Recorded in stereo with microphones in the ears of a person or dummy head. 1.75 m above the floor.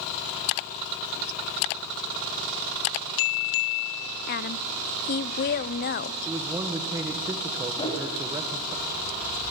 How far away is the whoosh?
About 6.5 m.